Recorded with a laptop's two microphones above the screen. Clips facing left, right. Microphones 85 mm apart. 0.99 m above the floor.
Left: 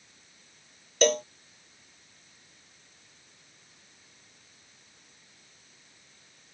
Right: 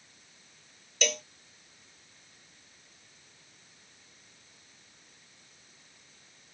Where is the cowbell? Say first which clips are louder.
Left 10 dB; 40° left (ahead or behind).